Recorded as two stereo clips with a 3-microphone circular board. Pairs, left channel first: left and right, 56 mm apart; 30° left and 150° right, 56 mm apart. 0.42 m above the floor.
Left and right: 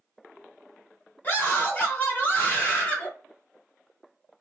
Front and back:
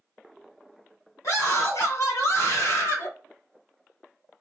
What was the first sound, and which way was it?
A scream, 35° left.